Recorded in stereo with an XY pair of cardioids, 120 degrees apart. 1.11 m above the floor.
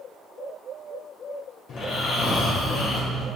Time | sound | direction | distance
1.7 | snoring | 55° left | 3.5 m